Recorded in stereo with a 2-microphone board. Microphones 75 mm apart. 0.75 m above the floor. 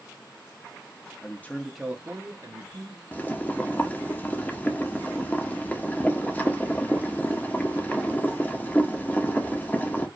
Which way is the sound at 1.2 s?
30° left (ahead or behind).